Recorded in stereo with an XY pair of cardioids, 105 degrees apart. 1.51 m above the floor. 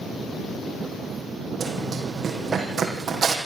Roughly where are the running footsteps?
Ahead right.